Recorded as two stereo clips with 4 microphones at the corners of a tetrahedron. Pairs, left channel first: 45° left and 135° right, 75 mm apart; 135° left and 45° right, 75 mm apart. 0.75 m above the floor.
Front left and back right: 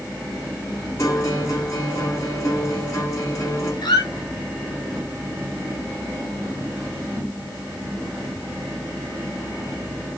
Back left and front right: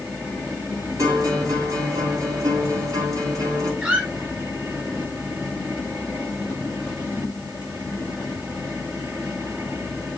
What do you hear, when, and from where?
1.0 s a guitar: 5° right, 4.5 m
3.8 s a squeak: 30° left, 2.5 m